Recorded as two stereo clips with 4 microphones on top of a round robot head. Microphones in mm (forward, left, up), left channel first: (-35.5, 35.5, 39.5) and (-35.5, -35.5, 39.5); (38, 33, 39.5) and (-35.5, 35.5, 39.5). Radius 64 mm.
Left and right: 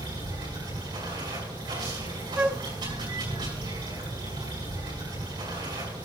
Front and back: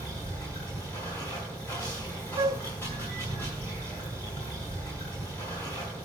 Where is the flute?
160° right, 0.6 m.